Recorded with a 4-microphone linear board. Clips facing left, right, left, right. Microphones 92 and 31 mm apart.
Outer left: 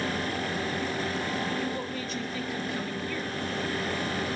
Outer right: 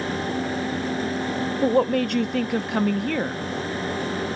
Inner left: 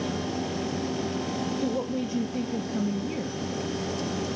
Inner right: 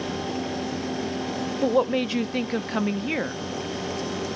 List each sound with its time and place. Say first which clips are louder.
1.6 s a woman speaking: outer right 13 dB, inner right 11 dB; 60° right (ahead or behind), 0.7 m